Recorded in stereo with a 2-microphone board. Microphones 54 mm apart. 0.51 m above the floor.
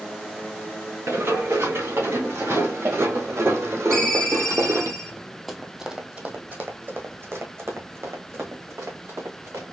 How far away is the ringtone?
About 1.2 m.